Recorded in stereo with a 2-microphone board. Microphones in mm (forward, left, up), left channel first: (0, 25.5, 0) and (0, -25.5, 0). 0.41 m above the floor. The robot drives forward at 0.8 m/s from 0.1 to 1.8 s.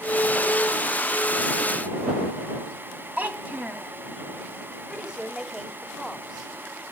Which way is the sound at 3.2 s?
35° right (ahead or behind).